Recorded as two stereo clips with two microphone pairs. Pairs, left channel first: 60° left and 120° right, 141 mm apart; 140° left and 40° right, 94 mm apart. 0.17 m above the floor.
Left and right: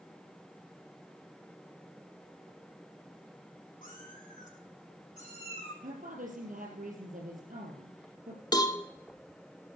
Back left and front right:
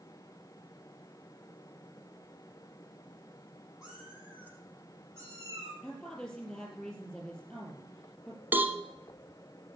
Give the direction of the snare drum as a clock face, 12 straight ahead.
No snare drum in this recording.